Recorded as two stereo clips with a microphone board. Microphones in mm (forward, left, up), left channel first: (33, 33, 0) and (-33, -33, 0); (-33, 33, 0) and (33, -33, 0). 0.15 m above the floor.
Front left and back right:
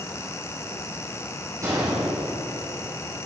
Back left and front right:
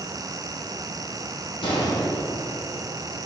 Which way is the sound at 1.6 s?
165° left.